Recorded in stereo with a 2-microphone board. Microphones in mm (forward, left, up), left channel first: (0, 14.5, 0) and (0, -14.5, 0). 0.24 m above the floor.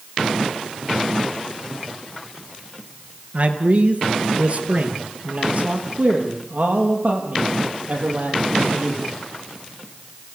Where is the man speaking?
45° right (ahead or behind), 3.5 m; by 9.0 s 50° right (ahead or behind), 7.5 m.